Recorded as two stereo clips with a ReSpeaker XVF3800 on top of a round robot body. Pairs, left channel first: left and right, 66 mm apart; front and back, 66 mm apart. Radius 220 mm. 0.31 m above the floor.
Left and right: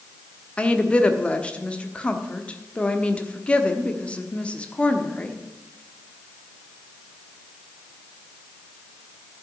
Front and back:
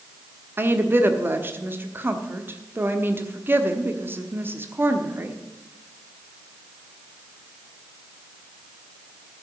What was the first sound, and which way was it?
A woman speaking, 150° left.